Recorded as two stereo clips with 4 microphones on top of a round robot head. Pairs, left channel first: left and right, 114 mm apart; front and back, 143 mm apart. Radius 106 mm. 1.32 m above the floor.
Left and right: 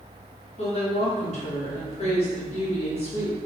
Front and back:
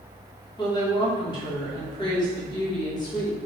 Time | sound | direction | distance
0.6 | a woman speaking | 60° left | 1.6 m